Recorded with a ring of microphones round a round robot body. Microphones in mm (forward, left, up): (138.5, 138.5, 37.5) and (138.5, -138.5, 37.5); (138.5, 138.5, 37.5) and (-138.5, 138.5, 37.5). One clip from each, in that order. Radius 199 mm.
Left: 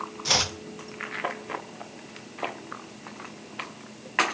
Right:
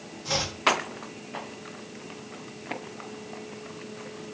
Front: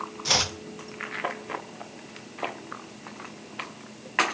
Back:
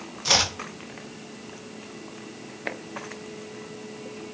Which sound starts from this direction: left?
Chopping, at 0.2 s.